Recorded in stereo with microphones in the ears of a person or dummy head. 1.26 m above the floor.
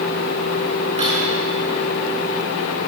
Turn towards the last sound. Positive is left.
turn(degrees=-35)  # may be behind; listen again after turning